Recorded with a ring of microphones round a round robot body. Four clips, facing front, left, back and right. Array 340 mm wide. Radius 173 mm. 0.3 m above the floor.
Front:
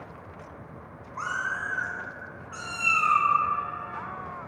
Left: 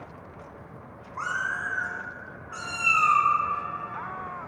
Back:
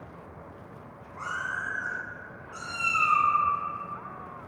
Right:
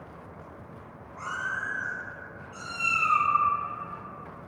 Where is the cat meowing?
55° left, 4 m; by 3.3 s 70° left, 4.5 m.